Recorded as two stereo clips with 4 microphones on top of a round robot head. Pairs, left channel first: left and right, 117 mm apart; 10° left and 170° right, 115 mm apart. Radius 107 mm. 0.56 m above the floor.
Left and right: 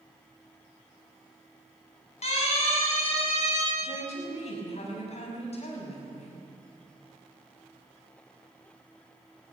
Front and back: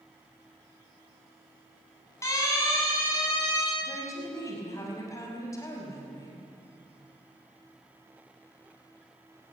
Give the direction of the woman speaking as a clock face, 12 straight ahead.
10 o'clock.